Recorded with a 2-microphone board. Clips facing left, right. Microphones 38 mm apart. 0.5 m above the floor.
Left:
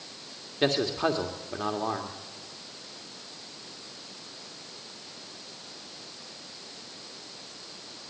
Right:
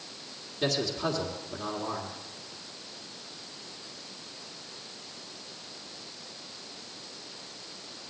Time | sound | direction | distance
0.6 | a man speaking | 40° left (ahead or behind) | 1.6 m